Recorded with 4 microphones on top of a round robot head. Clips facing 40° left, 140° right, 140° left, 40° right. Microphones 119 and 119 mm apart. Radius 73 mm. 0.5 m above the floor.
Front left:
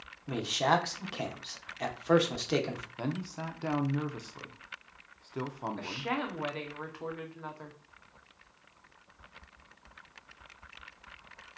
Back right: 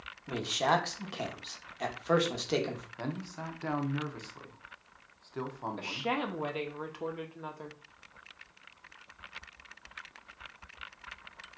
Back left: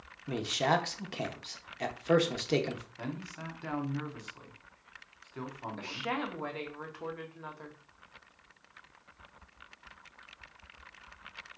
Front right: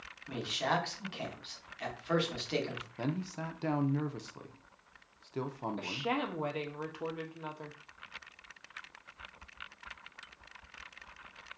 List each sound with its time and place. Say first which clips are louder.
0.3 s a man speaking: front left 1 dB, back left 4 dB; 130° left, 0.9 m
3.0 s a man speaking: front left 4 dB, front right 4 dB; 30° right, 0.7 m
5.8 s a woman speaking: back right 2 dB, even; 90° right, 0.8 m